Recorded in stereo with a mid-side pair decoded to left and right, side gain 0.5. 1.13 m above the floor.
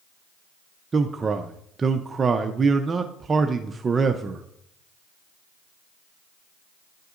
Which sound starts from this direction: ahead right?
A man speaking, at 0.9 s.